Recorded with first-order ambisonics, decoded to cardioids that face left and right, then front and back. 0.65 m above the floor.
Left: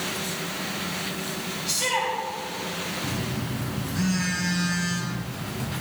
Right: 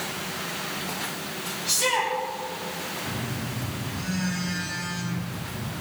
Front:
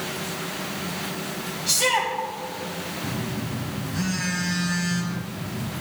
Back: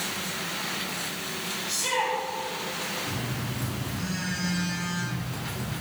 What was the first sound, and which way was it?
A shout, 5° left.